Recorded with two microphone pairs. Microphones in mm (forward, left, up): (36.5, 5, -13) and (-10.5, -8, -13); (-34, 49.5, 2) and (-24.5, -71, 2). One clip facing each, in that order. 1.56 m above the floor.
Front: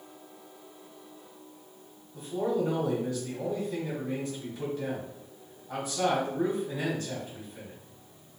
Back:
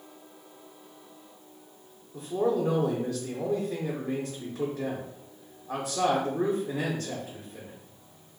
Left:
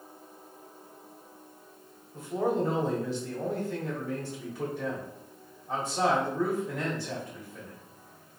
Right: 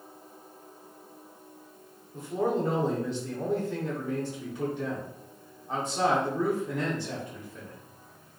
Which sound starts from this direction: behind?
A man speaking, at 2.1 s.